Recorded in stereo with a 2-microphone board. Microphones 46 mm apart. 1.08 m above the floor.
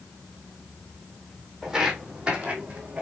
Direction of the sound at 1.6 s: 15° right (ahead or behind).